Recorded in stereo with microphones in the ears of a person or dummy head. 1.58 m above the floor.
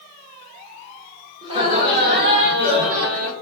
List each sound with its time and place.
1.4 s laughter: 25° right (ahead or behind), 1.2 m; by 3.3 s 65° right (ahead or behind), 1.0 m